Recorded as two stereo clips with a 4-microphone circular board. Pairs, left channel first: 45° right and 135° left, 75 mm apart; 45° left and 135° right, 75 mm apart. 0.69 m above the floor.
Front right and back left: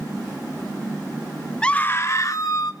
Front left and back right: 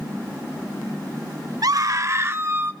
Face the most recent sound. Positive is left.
turn(degrees=-75)